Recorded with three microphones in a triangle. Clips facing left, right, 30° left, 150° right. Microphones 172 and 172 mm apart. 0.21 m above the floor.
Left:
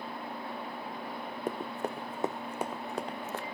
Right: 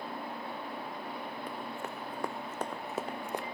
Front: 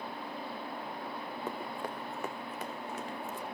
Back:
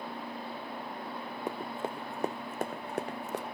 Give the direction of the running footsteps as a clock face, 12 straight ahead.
7 o'clock.